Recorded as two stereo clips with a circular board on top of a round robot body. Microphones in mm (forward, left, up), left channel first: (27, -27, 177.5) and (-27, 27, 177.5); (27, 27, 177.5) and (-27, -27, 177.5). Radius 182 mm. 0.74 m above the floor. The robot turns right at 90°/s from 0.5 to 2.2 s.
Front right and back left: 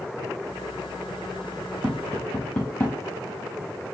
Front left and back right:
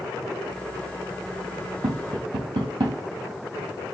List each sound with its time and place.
1.8 s tapping: 150° right, 0.8 m; by 3.0 s 115° right, 0.8 m